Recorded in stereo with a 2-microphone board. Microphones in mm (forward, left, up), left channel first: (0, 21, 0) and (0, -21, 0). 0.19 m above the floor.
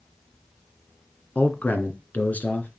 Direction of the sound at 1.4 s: 45° left (ahead or behind).